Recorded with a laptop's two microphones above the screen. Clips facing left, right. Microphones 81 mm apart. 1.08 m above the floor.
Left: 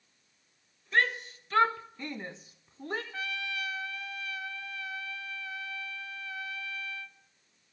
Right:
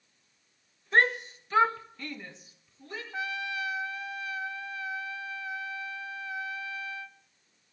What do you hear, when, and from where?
0.9 s a shout: 35° right (ahead or behind), 0.7 m; by 3.0 s 55° left (ahead or behind), 0.9 m
3.1 s a trumpet: 20° right (ahead or behind), 0.7 m